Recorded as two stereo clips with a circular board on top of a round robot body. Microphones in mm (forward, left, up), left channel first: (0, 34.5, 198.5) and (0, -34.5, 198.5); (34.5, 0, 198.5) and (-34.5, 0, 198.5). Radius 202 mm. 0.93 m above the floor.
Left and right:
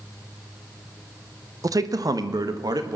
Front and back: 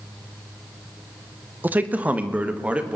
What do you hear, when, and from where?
1.6 s a man speaking: 120° right, 1.2 m; by 3.0 s 110° right, 2.0 m